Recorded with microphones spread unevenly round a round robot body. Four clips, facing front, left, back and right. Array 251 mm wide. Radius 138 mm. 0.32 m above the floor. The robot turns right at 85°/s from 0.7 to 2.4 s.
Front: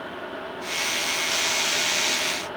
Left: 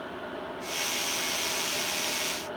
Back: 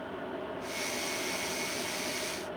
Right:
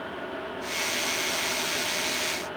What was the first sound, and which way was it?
Only background noise.